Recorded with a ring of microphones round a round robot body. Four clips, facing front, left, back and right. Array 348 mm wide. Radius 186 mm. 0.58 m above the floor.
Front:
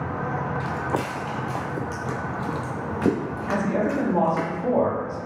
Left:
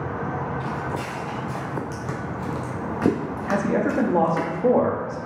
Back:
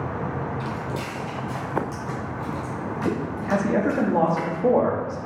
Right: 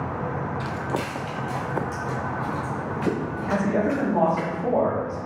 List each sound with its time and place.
0.6 s footsteps: 90° right, 0.8 m; by 4.5 s 65° left, 1.6 m
3.5 s a man speaking: 130° left, 1.0 m